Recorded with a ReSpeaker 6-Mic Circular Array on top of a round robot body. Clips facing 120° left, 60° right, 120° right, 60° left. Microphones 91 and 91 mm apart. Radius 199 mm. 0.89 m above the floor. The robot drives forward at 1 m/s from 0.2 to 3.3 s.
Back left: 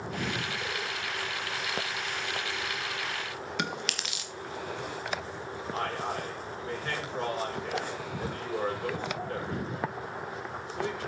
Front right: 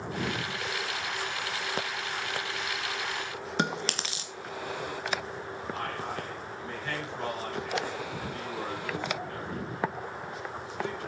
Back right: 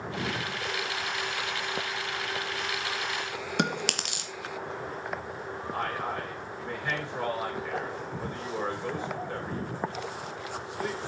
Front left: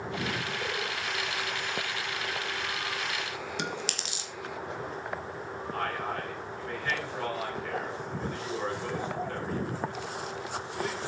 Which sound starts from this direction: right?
Chewing, at 3.6 s.